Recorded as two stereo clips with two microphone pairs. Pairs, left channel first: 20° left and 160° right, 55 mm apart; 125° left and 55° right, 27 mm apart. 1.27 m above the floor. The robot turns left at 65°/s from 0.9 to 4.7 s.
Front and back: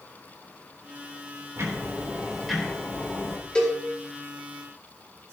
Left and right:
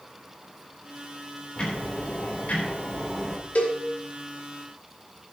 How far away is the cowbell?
About 3.5 m.